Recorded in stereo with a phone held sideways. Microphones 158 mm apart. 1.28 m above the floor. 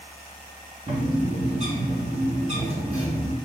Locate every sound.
0.9 s a bird: 45° right (ahead or behind), 1.6 m